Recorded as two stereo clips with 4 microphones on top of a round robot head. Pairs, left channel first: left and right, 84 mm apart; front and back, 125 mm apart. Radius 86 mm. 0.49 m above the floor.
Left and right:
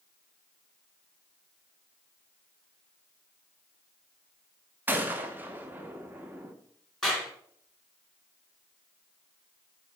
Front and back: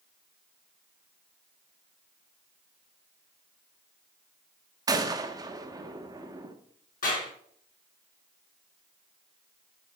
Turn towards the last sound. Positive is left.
turn(degrees=5)